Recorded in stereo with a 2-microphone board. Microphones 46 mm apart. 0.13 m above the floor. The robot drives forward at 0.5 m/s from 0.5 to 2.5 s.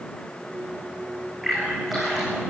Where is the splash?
Centre (ahead or behind), 8.5 m.